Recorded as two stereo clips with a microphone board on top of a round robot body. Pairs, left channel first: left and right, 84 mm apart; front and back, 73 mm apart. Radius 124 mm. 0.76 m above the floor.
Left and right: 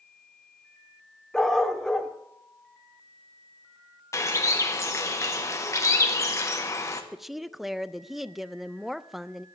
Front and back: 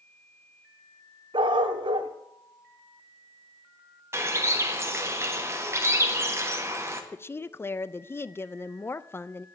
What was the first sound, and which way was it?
A dog barking, 175° left.